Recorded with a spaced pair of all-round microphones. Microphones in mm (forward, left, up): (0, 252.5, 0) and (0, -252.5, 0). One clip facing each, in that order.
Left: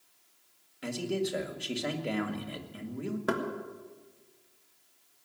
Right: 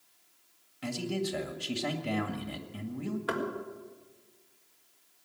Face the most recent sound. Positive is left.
turn(degrees=65)  # may be behind; listen again after turning